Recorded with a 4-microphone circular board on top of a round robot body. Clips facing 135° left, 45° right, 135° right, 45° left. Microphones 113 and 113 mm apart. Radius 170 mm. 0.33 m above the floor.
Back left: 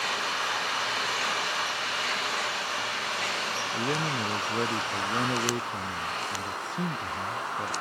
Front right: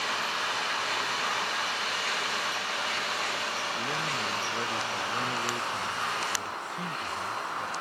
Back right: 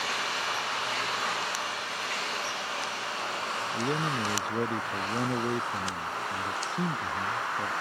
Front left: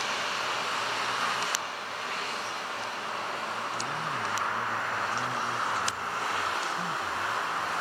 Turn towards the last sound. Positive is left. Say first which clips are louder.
# back left 3 dB, back right 3 dB
turn(degrees=-165)